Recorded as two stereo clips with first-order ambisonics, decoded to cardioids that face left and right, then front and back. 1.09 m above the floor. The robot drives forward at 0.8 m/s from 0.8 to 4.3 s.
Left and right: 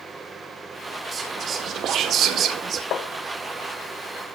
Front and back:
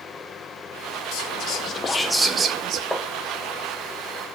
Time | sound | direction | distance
1.1 | whispering | 25° right | 1.0 m
2.9 | tapping | 90° left | 0.8 m